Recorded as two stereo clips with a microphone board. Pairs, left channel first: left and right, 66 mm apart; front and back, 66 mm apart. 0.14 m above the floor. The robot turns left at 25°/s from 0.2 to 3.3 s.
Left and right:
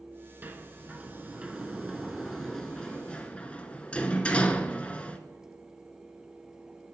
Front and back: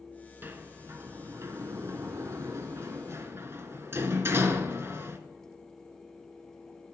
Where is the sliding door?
135° right, 0.6 m; by 5.2 s 155° left, 0.6 m.